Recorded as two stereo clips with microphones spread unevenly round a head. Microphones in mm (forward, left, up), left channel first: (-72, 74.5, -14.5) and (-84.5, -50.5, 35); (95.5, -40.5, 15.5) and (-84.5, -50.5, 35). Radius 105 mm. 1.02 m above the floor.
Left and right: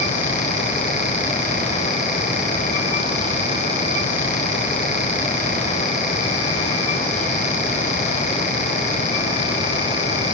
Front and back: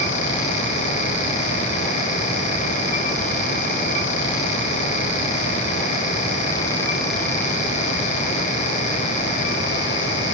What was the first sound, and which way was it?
Only background noise.